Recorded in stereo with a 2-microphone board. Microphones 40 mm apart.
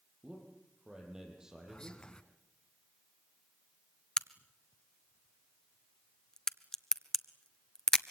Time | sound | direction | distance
0.2 | a man speaking | 15° right (ahead or behind) | 6.5 m
1.7 | whispering | 20° left (ahead or behind) | 1.7 m
4.2 | a crack | 15° left (ahead or behind) | 0.8 m